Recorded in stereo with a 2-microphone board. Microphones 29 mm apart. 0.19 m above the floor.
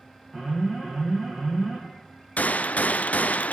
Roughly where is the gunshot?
Left.